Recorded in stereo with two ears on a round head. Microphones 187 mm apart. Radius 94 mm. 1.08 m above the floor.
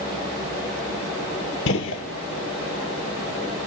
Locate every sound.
1.7 s a gunshot: 65° left (ahead or behind), 1.2 m